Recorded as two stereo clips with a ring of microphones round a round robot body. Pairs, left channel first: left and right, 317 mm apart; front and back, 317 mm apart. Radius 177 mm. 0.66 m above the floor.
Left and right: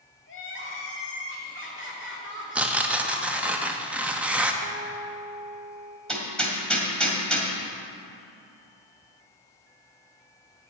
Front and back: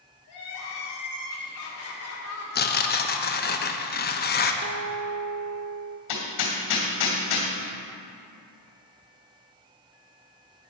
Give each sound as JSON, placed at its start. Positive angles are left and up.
{"t": 0.3, "sound": "crying", "azimuth_deg": 40, "distance_m": 2.0}
{"t": 2.5, "sound": "tearing paper", "azimuth_deg": -10, "distance_m": 0.8}
{"t": 4.6, "sound": "a guitar", "azimuth_deg": -135, "distance_m": 1.0}
{"t": 6.1, "sound": "hammering", "azimuth_deg": 5, "distance_m": 2.5}